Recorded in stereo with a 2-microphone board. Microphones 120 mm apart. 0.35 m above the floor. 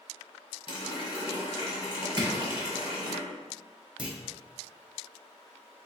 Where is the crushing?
45° right (ahead or behind), 1.1 m.